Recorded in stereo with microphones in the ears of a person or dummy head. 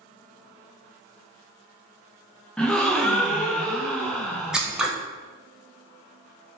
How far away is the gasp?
About 0.6 m.